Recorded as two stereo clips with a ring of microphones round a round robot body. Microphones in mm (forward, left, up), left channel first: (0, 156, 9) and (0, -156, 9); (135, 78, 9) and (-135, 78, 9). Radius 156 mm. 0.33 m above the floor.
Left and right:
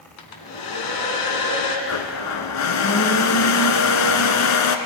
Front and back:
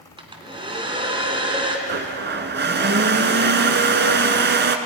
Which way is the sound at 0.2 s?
110° left.